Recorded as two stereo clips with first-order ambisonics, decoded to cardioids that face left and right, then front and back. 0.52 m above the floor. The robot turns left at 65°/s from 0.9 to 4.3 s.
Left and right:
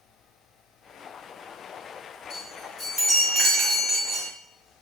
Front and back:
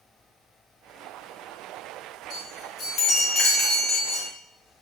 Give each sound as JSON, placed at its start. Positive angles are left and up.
{"t": 2.3, "sound": "a chime", "azimuth_deg": 50, "distance_m": 1.0}